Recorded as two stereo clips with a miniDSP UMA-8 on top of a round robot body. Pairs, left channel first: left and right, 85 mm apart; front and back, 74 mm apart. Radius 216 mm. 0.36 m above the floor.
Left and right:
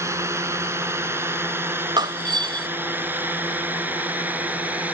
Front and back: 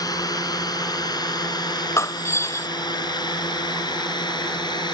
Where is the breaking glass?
55° right.